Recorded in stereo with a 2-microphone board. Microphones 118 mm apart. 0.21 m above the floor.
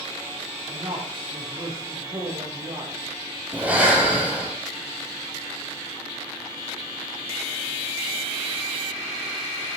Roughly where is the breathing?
Centre.